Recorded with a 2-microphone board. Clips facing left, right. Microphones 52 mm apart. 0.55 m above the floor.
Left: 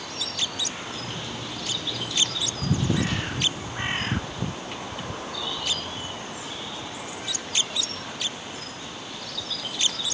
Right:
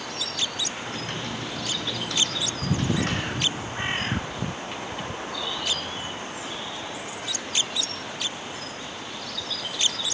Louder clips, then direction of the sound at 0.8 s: Right 2 dB; 55° right (ahead or behind).